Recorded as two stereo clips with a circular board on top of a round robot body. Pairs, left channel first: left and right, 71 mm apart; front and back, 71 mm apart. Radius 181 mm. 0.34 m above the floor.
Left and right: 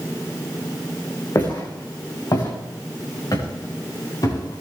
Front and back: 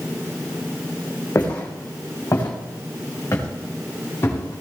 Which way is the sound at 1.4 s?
50° left.